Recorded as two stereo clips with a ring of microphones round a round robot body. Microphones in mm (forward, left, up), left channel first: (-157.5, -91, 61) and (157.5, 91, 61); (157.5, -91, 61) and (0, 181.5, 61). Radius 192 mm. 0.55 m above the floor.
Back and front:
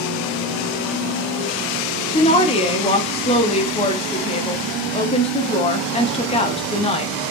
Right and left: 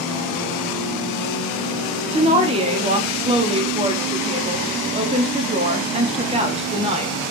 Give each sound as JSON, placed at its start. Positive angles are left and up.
{"t": 2.1, "sound": "a woman speaking", "azimuth_deg": 160, "distance_m": 0.6}